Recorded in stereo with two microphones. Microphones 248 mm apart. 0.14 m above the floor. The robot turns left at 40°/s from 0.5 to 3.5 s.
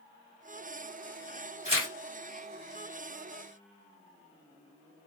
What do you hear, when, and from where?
1.6 s tearing paper: 25° right (ahead or behind), 2 m; by 1.9 s 15° right (ahead or behind), 2 m